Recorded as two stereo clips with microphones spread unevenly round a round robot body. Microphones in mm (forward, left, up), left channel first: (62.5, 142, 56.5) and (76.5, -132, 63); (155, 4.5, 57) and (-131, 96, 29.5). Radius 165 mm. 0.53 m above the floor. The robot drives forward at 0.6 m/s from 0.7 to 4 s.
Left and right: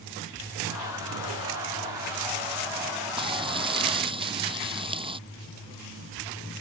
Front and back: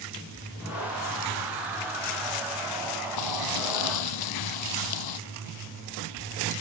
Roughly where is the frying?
Ahead.